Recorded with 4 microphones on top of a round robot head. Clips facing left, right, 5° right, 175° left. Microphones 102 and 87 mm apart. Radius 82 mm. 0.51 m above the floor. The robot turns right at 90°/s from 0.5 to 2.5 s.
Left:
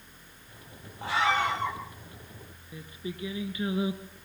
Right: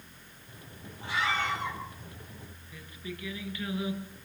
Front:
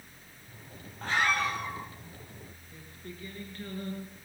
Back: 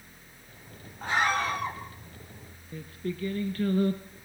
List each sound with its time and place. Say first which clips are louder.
1.0 s a scream: left 5 dB, back 2 dB; 95° left, 4.5 m; by 1.8 s 160° left, 4.5 m
2.7 s singing: left 4 dB, back 12 dB; 155° left, 2.5 m